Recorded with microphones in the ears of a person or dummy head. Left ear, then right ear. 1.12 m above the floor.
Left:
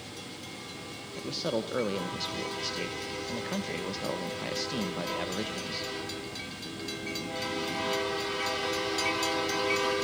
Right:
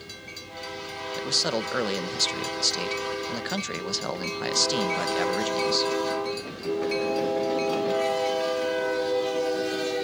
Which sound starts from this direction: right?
A man speaking, at 1.2 s.